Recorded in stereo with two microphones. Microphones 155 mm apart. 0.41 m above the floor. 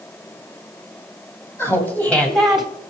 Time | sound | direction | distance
1.6 | laughter | 15° left (ahead or behind) | 3.5 m